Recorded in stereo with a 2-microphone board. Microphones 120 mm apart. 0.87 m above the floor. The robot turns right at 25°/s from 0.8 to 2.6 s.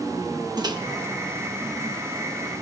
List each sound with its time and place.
0.6 s a microwave: 35° right (ahead or behind), 0.8 m